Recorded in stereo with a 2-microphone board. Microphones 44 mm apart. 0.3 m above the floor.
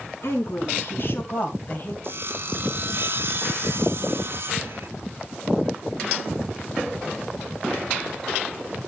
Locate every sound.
0.2 s a woman speaking: 60° left (ahead or behind), 3 m; by 1.9 s 40° left (ahead or behind), 1.6 m
2.0 s sawing: 55° right (ahead or behind), 1.0 m